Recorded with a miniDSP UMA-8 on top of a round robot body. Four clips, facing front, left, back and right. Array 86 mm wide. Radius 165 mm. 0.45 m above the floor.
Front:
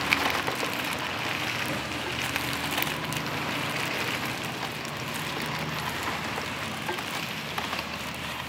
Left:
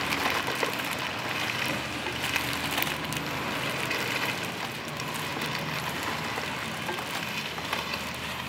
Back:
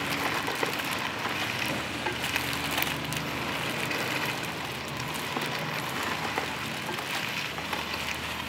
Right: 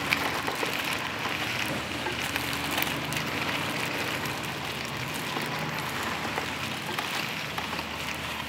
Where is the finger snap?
25° right, 1.3 m.